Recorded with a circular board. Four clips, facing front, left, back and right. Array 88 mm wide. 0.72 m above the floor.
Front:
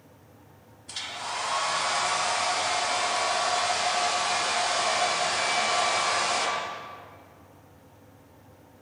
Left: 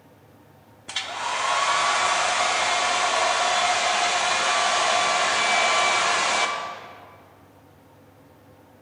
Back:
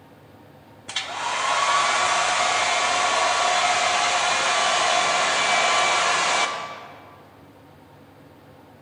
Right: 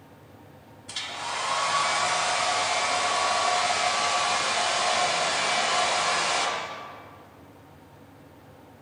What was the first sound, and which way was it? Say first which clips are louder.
A hair dryer: left 5 dB, back 7 dB; 150° left.